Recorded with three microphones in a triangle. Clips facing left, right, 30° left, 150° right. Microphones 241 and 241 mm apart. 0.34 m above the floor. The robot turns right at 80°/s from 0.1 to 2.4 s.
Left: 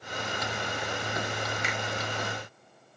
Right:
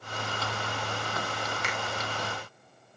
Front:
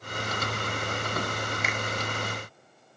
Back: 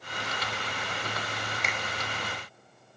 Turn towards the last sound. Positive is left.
turn(degrees=165)